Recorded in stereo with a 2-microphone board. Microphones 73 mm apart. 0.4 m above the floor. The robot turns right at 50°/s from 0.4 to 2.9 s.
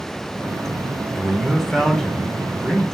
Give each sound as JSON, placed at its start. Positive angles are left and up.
{"t": 1.1, "sound": "a man speaking", "side_deg": -5, "distance_m": 0.9}